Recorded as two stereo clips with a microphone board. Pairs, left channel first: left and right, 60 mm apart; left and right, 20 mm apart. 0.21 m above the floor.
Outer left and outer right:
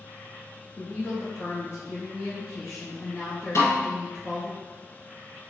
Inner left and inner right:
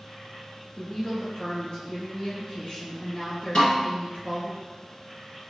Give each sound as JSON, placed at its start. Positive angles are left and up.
{"t": 0.8, "sound": "a woman speaking", "side_deg": 50, "distance_m": 1.8}
{"t": 3.5, "sound": "a snare drum", "side_deg": 60, "distance_m": 1.6}